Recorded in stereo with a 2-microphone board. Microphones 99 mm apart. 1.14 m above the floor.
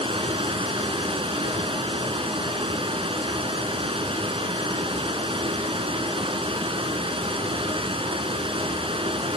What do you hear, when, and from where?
0.0 s running water: 65° right (ahead or behind), 2 m